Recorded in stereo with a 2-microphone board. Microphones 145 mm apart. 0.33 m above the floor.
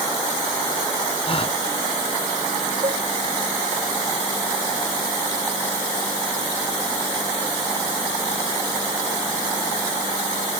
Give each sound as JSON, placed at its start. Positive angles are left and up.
{"t": 1.2, "sound": "a gasp", "side_deg": 40}
{"t": 2.8, "sound": "a cowbell", "side_deg": -45}